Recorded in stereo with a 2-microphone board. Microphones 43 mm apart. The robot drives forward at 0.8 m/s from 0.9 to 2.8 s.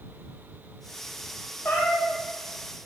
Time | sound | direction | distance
1.6 | a cat meowing | 55° left (ahead or behind) | 1.8 m